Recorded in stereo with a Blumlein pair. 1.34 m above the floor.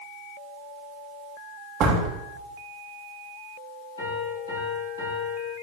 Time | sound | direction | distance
1.8 | a door slam | 30° right | 1.2 m
4.0 | a piano | 65° left | 3 m